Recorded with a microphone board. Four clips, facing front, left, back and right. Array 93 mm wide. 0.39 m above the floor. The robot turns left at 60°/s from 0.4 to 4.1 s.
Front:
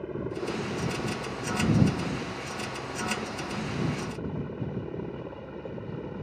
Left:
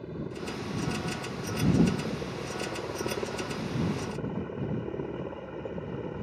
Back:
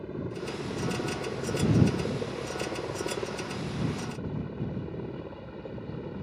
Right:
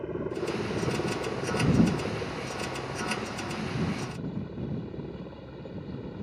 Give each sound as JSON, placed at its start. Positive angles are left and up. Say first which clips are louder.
{"t": 0.0, "sound": "a helicopter", "louder": "right 5 dB, front 3 dB", "azimuth_deg": -60}